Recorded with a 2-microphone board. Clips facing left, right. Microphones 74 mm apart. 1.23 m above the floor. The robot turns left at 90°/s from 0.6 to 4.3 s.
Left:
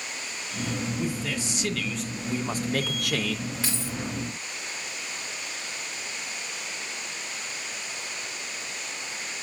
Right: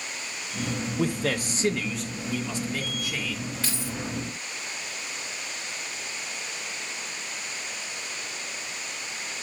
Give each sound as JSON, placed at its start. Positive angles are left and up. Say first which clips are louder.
{"t": 1.0, "sound": "a man speaking", "louder": "right 3 dB", "azimuth_deg": -90, "distance_m": 0.9}
{"t": 3.6, "sound": "keys jangling", "louder": "even", "side_deg": 5, "distance_m": 3.0}